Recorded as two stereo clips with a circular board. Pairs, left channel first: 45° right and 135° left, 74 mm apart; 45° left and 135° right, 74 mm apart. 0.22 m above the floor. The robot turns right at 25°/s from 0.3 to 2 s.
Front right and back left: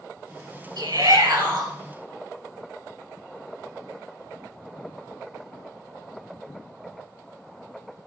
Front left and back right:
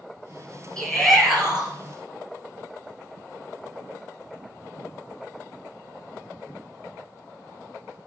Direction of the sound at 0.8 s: 125° left.